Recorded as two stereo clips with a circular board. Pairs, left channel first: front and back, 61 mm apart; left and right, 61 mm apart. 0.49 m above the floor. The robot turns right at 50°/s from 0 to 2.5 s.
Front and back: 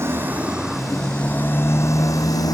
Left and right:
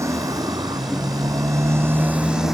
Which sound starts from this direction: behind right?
A motorcycle, at 0.0 s.